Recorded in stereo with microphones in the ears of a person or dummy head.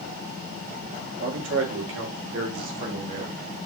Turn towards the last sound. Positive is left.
turn(degrees=-55)  # may be behind; listen again after turning